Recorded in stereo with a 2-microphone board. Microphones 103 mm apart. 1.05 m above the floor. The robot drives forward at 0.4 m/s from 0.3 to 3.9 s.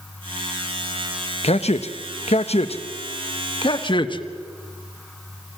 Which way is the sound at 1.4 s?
75° left (ahead or behind).